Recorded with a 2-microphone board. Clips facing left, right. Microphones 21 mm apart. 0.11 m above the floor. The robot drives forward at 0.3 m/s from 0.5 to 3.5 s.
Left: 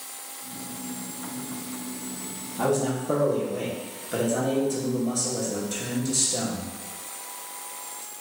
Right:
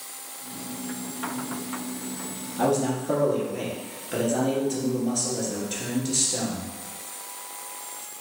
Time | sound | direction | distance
2.6 | a man speaking | 20° right (ahead or behind) | 1.5 m